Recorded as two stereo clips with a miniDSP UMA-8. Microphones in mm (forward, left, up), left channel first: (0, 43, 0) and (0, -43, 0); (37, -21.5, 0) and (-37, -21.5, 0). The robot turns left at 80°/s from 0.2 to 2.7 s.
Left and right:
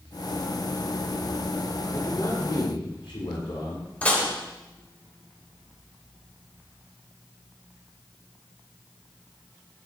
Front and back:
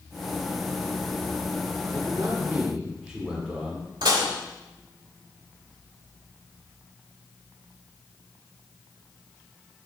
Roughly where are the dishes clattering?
Behind.